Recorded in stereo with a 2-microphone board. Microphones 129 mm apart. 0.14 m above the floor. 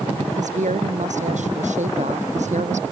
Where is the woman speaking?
80° right; by 2.9 s 75° right (ahead or behind).